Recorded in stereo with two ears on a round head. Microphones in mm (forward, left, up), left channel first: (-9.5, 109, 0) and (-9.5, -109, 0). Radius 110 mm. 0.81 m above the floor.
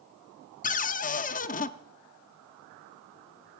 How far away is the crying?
I don't hear crying.